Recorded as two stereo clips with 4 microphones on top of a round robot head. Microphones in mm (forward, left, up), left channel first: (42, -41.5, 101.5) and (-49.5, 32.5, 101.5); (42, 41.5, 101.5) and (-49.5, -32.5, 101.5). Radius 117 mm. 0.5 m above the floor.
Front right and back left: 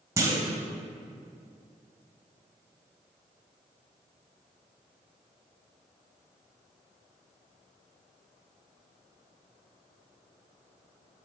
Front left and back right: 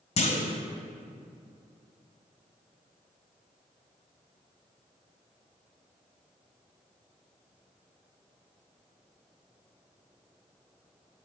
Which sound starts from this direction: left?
A clunk, at 0.2 s.